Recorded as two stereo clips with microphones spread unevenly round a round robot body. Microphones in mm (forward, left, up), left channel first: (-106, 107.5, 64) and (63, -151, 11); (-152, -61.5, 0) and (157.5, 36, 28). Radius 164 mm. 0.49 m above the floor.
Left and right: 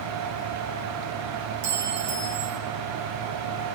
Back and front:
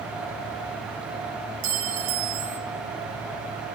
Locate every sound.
1.6 s a clink: straight ahead, 2.5 m